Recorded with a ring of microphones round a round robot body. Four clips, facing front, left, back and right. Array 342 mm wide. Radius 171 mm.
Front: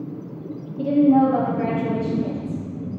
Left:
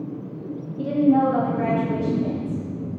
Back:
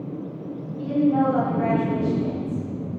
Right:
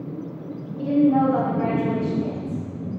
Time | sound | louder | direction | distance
0.8 | a woman speaking | even, front 5 dB | 30° left | 4 m